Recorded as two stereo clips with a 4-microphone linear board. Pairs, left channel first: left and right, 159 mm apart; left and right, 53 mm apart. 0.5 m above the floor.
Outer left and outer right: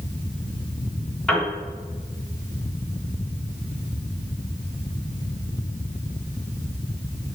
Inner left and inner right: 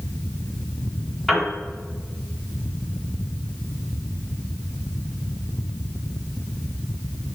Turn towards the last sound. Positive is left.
turn(degrees=0)  # may be behind; listen again after turning